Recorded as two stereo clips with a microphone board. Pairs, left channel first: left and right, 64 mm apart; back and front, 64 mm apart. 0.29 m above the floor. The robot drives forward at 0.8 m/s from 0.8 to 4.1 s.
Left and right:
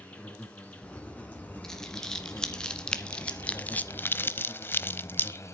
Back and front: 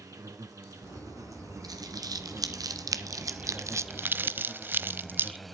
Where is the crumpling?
10° left, 2.5 m; by 5.4 s 50° left, 0.6 m.